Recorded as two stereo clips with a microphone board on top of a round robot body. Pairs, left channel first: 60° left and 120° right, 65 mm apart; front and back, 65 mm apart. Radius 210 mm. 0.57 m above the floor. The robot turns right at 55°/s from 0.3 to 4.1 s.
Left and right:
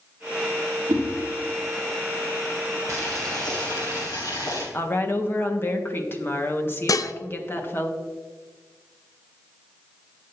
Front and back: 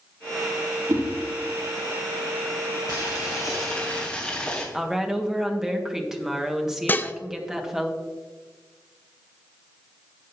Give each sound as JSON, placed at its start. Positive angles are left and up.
{"t": 0.9, "sound": "a whoosh", "azimuth_deg": -150, "distance_m": 1.9}
{"t": 2.9, "sound": "boiling", "azimuth_deg": 10, "distance_m": 2.5}
{"t": 4.7, "sound": "a woman speaking", "azimuth_deg": 100, "distance_m": 1.6}
{"t": 6.9, "sound": "dishes clattering", "azimuth_deg": 55, "distance_m": 0.7}